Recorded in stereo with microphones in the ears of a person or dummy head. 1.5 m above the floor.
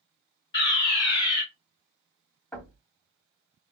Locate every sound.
0.5 s a fire alarm: 25° left (ahead or behind), 1.7 m
2.5 s knocking: 10° left (ahead or behind), 2 m